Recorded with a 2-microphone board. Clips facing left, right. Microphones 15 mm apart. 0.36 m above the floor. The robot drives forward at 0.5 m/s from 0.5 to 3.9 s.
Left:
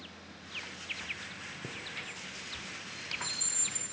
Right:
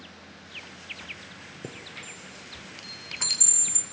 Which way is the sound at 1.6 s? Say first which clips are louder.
Right 2 dB; 65° right (ahead or behind).